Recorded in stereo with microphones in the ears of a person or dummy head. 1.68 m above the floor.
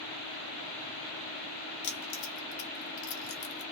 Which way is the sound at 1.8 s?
55° left (ahead or behind).